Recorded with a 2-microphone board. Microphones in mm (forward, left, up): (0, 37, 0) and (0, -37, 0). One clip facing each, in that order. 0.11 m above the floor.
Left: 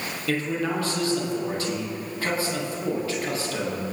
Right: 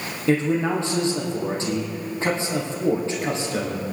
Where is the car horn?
No car horn in this recording.